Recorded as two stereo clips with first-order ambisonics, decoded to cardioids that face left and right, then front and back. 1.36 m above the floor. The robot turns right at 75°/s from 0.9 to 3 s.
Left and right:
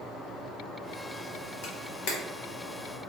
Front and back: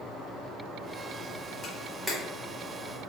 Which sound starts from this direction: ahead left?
A camera shutter, at 1.6 s.